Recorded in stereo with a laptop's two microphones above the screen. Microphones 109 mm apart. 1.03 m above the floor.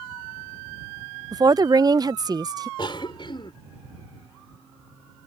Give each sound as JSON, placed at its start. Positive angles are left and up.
{"t": 1.3, "sound": "a woman speaking", "side_deg": -35}
{"t": 2.8, "sound": "a cough", "side_deg": 45}